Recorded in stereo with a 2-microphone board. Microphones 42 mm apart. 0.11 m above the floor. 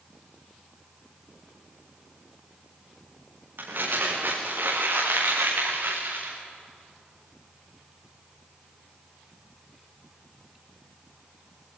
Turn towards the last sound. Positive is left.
turn(degrees=-55)  # may be behind; listen again after turning